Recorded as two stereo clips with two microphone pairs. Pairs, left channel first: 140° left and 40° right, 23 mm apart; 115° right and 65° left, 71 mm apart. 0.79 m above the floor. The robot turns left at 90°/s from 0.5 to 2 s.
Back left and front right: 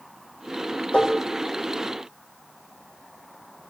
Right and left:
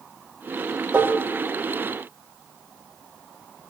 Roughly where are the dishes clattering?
Behind left.